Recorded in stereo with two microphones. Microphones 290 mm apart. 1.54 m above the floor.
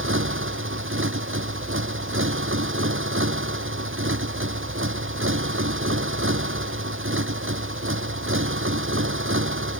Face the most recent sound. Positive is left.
turn(degrees=-45)  # may be behind; listen again after turning